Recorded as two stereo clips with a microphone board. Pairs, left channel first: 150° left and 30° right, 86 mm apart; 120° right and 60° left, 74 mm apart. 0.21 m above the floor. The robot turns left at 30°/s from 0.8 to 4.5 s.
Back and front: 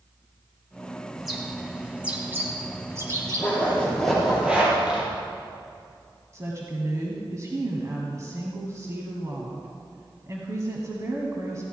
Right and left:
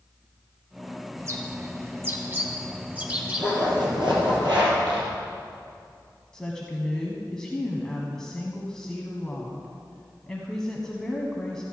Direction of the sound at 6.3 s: 45° right.